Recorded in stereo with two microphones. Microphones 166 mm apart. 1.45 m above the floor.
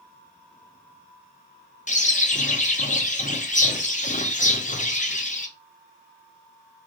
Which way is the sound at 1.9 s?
45° left (ahead or behind).